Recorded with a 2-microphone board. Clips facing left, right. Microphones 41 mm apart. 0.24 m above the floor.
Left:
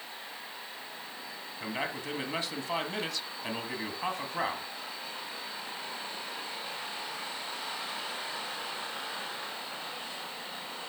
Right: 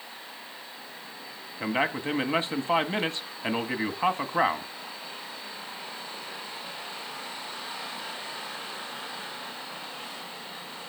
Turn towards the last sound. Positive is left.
turn(degrees=-30)  # may be behind; listen again after turning